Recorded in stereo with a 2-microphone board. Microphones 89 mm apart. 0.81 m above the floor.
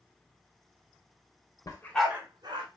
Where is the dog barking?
40° left (ahead or behind), 0.8 m; by 2.7 s 60° right (ahead or behind), 1.1 m.